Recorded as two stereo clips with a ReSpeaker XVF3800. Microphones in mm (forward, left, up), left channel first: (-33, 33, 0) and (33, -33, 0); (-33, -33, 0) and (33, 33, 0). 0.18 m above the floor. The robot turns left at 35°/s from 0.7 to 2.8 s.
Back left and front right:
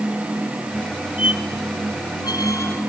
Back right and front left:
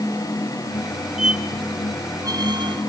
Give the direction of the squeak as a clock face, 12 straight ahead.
8 o'clock.